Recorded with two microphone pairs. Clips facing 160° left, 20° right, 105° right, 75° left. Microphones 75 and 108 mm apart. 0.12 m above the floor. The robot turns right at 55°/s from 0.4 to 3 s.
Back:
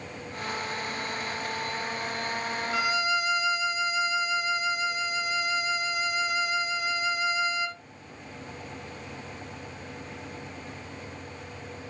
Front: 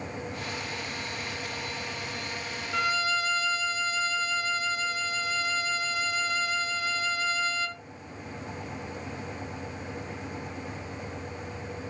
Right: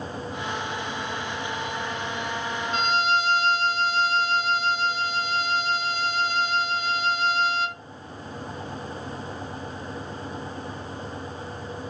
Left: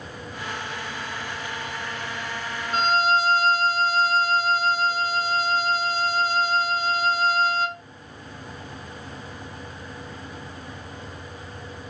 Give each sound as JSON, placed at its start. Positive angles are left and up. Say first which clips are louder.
{"t": 2.7, "sound": "a violin", "louder": "even, left 3 dB", "azimuth_deg": 75, "distance_m": 0.6}